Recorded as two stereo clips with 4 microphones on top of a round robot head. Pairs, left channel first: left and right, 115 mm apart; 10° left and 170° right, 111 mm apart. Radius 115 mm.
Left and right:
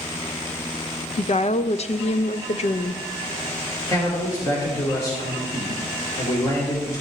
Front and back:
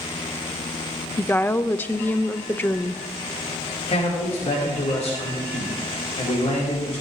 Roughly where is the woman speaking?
Left.